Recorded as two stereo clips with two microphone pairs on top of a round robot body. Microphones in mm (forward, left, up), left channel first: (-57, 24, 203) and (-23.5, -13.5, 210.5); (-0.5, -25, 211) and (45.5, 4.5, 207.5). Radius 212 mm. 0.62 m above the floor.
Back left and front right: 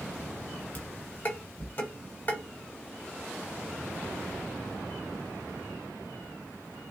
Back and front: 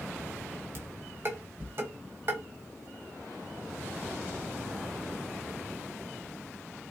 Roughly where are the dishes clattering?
Left.